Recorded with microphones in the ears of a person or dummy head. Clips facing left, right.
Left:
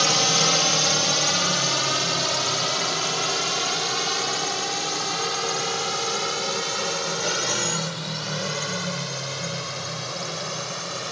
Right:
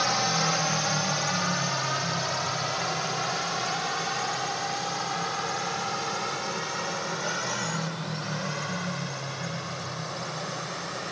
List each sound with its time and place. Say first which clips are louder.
0.0 s a drone: left 3 dB; 40° left (ahead or behind)